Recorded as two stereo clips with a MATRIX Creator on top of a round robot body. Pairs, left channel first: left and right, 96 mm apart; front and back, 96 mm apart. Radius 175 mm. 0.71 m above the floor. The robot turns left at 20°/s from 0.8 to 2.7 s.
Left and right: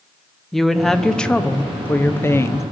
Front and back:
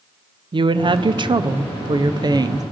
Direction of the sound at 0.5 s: 175° left.